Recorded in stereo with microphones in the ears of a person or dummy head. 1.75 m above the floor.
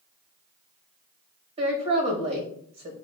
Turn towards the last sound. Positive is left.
turn(degrees=-30)  # may be behind; listen again after turning